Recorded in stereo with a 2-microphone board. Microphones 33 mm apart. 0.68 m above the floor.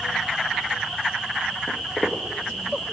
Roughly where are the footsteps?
Left.